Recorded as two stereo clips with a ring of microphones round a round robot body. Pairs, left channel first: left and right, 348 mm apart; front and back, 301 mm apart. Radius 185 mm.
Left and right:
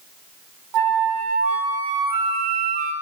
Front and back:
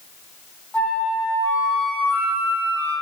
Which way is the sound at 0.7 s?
85° right.